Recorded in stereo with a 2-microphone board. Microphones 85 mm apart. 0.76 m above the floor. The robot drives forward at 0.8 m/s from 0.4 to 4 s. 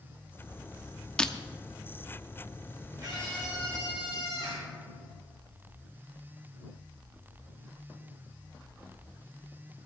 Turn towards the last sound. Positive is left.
turn(degrees=-45)  # may be behind; listen again after turning